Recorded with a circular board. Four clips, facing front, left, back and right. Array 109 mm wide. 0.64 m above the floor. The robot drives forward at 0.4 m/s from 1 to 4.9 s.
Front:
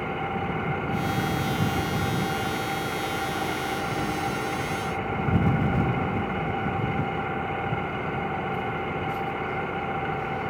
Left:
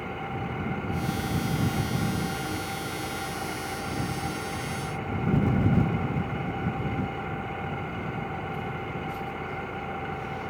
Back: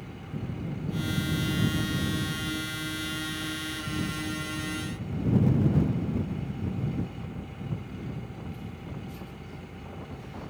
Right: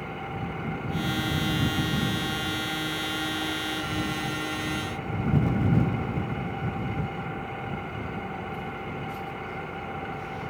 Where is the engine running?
5° left.